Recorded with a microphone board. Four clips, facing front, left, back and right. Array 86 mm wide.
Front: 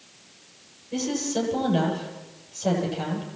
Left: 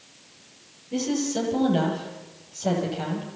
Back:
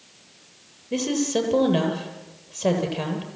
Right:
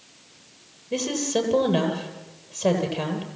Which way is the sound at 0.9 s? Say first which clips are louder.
Right 1 dB, back 3 dB; 140° right.